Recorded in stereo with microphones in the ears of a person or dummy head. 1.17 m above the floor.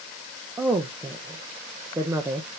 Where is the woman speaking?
5° right (ahead or behind), 0.7 m.